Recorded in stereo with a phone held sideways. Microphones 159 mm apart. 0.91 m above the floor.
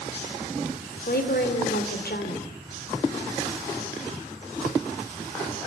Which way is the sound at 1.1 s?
80° left.